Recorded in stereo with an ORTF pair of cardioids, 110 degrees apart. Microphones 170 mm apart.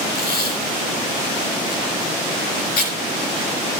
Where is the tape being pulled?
65° left, 5 m.